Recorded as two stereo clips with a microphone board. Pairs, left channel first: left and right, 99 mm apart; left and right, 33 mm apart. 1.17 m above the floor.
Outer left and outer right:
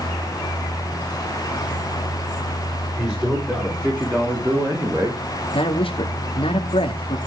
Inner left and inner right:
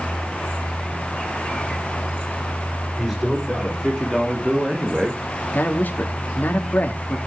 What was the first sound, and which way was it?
A man speaking, 15° right (ahead or behind).